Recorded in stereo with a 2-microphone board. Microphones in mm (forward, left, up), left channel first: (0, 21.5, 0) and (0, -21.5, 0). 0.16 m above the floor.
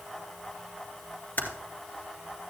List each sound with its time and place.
1.4 s typing on a keyboard: 40° left (ahead or behind), 2 m